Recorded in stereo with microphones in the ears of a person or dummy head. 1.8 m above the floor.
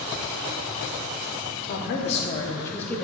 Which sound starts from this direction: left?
A woman speaking, at 1.6 s.